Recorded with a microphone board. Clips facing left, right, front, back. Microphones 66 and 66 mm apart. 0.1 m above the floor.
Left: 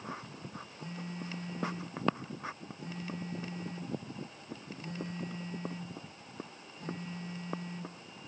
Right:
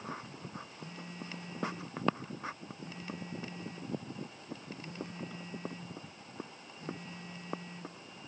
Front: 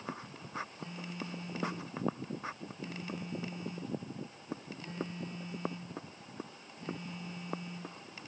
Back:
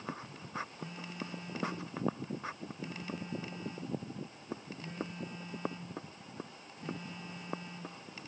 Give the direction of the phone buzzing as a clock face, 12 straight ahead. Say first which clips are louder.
Left 3 dB, front 1 dB; 9 o'clock.